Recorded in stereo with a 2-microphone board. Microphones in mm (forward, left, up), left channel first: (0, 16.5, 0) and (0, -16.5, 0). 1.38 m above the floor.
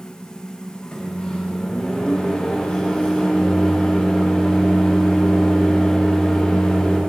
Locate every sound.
0.9 s a microwave: 25° left (ahead or behind), 2.5 m